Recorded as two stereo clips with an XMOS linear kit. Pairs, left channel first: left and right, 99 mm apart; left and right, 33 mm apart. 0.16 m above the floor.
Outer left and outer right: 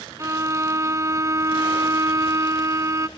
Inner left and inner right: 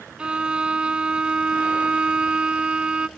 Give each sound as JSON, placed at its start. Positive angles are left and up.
{"t": 0.2, "sound": "a violin", "side_deg": -30, "distance_m": 0.5}